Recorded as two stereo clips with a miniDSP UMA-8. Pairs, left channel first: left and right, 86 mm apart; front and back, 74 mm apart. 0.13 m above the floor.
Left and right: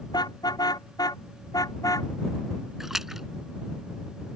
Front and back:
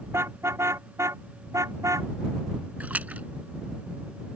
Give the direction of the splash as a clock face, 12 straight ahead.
6 o'clock.